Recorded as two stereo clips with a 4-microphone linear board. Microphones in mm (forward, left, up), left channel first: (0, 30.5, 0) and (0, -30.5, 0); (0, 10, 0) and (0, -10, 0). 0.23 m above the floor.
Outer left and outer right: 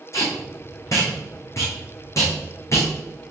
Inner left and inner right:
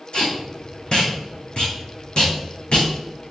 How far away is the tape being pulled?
About 2.5 m.